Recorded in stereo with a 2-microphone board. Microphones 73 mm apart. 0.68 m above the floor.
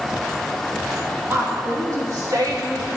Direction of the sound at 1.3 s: 30° right (ahead or behind).